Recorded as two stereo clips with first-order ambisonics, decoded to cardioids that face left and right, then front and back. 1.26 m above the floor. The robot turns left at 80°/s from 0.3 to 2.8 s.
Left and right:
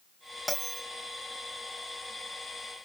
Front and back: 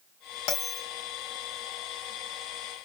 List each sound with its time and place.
0.5 s a bell: 5° left, 2.5 m; by 0.8 s 20° right, 2.5 m